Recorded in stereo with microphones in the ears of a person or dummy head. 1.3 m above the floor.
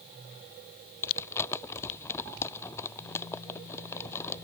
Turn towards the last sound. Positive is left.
turn(degrees=10)  # may be behind; listen again after turning